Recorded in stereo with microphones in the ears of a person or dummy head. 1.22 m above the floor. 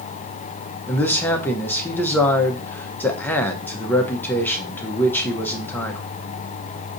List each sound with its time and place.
0.9 s a man speaking: 5° left (ahead or behind), 0.6 m